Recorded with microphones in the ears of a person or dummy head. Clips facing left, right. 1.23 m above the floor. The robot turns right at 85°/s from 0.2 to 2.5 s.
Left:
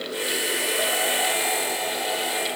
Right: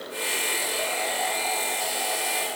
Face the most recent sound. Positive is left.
No sound to turn to.